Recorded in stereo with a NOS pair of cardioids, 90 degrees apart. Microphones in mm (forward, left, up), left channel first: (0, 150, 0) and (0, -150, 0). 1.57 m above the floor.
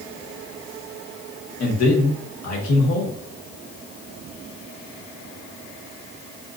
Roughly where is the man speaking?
Ahead left.